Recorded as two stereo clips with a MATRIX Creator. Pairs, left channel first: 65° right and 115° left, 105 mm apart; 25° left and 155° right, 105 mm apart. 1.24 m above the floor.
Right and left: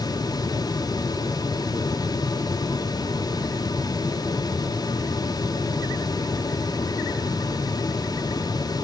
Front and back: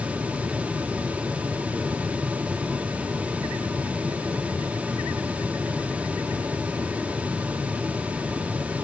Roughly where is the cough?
No cough in this recording.